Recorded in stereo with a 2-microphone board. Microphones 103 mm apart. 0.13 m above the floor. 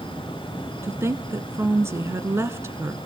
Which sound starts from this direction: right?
A woman speaking, at 0.8 s.